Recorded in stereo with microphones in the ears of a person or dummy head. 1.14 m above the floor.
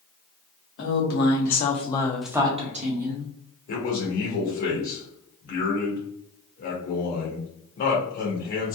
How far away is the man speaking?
About 1.1 m.